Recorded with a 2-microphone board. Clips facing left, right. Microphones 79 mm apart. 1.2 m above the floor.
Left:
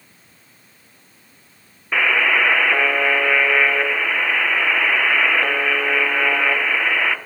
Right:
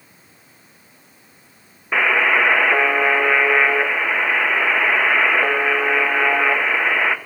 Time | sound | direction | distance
1.9 | a buzzer | 15° right (ahead or behind) | 0.7 m